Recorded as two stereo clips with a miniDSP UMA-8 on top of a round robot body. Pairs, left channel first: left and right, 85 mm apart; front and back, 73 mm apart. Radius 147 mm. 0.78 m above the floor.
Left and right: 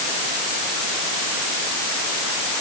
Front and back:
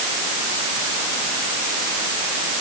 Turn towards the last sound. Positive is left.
No sound to turn to.